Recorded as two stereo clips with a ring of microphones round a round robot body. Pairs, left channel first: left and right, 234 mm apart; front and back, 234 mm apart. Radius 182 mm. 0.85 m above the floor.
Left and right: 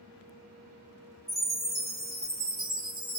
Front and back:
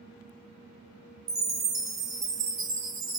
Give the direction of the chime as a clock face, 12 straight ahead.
6 o'clock.